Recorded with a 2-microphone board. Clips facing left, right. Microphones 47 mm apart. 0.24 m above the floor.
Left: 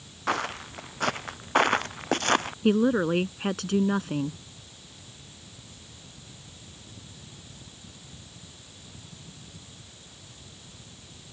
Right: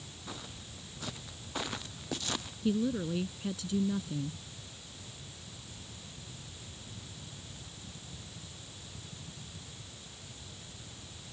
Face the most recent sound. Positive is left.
turn(degrees=65)  # may be behind; listen again after turning